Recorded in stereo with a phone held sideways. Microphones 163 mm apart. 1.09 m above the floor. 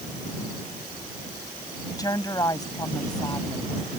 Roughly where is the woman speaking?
Left.